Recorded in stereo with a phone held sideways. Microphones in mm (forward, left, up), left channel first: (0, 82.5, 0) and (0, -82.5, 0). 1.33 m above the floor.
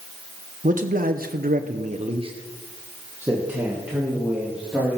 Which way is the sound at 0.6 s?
50° right (ahead or behind).